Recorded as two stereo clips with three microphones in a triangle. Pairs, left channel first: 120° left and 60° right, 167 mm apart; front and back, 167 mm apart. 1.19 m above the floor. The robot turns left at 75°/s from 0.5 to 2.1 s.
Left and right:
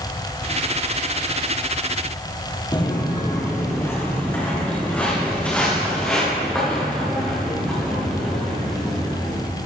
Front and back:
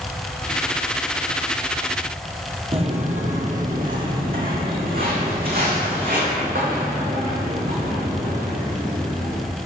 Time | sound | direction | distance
2.7 | footsteps | 165° left | 1.5 m